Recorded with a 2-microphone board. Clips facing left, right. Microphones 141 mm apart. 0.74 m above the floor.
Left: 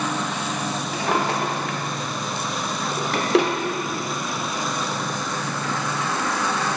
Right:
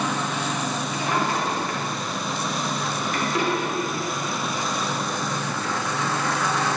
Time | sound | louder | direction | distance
0.9 | a drawer | left 3 dB | 75° left (ahead or behind) | 1.1 m